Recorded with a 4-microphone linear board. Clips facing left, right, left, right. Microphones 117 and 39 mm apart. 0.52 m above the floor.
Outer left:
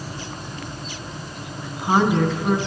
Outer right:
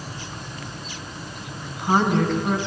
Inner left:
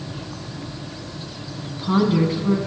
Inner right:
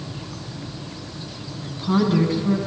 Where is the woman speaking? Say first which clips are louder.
Outer left 2 dB, inner left 1 dB; 10° left (ahead or behind), 4.5 m.